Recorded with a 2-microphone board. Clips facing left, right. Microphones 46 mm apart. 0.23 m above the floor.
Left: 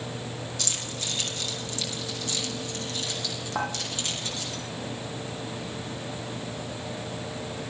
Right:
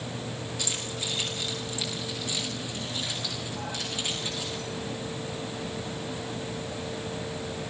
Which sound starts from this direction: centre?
Keys jangling, at 0.6 s.